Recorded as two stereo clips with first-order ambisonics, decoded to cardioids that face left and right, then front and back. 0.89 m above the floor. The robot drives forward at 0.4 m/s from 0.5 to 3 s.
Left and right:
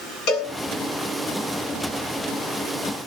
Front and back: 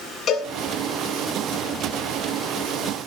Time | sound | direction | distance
0.3 | a cowbell | 55° left | 7.5 m